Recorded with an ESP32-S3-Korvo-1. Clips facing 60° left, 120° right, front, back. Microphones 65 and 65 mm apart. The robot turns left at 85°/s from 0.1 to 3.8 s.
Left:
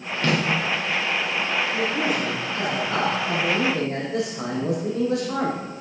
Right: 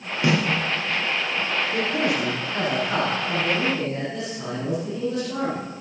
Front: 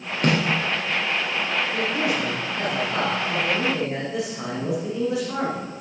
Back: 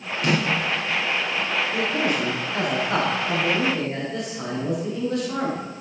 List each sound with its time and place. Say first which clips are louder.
0.2 s a snare drum: right 2 dB, front 1 dB; 45° right, 9.5 m; by 0.4 s 60° right, 9.5 m
1.7 s a man speaking: even, back 2 dB; 100° right, 7.5 m; by 5.6 s 85° left, 7.5 m